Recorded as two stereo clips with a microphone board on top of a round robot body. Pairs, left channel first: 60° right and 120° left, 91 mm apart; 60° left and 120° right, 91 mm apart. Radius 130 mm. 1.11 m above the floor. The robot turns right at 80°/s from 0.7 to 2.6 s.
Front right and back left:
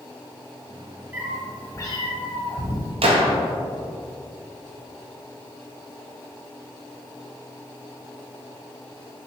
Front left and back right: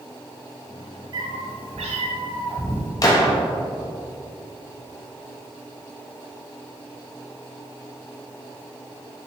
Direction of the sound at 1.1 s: 170° right.